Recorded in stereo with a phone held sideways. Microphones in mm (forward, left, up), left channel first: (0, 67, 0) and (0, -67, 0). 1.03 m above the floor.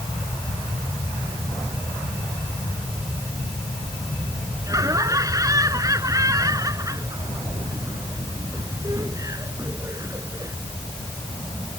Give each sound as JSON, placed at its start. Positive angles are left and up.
{"t": 4.7, "sound": "laughter", "side_deg": -25}